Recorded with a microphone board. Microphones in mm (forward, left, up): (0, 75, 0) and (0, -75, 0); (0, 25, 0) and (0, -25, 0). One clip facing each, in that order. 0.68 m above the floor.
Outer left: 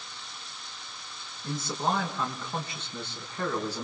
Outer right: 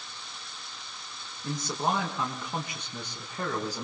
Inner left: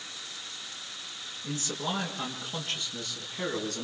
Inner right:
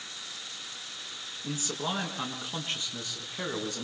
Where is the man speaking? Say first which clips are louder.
Even, even; 20° right (ahead or behind), 8 m; by 3.9 s 15° right (ahead or behind), 7 m.